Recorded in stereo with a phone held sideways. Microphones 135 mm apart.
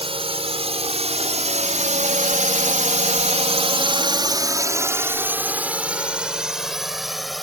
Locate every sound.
0.0 s a drone: 45° right (ahead or behind); by 7.4 s centre (ahead or behind)